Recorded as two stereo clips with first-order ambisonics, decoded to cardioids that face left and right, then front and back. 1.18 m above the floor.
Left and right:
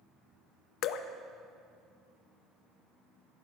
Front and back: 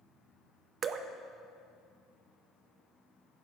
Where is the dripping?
120° left, 0.5 m.